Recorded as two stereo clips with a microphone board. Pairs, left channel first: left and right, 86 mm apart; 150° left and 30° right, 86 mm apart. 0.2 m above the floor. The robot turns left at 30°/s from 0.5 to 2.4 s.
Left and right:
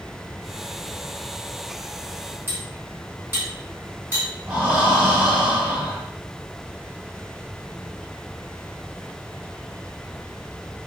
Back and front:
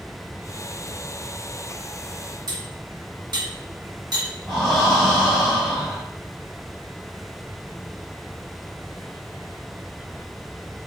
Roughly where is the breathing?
Behind right.